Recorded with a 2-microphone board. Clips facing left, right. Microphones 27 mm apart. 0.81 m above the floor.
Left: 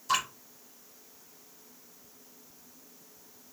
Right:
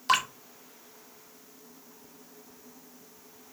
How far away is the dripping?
About 1.0 m.